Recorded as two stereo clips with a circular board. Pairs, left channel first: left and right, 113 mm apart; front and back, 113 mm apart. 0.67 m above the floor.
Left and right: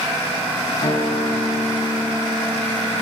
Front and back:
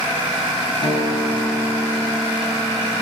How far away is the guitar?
About 3.5 m.